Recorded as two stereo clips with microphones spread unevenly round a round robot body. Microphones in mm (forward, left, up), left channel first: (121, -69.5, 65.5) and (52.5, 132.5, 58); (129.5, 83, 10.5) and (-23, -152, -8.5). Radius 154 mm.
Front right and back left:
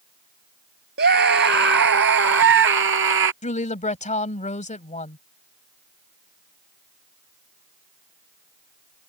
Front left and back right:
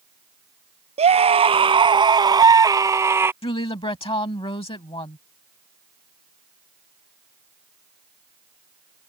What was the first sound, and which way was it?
A scream, 165° left.